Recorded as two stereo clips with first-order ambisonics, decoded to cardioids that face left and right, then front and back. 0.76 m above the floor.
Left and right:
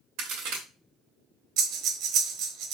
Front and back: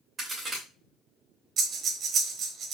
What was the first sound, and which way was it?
A crack, 105° right.